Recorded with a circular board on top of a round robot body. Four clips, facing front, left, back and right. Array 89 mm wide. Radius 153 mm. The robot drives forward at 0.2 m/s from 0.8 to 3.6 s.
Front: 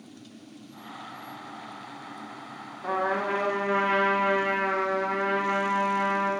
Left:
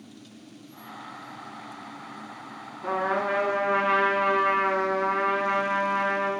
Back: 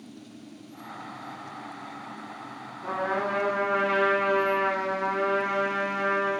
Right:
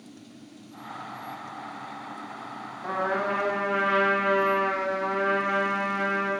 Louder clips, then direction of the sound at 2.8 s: Left 1 dB, front 1 dB; 100° left.